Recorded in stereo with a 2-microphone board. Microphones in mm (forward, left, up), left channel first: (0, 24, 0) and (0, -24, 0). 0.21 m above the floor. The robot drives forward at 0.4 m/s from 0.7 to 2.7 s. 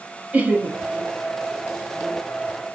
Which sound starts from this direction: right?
Laughter, at 0.3 s.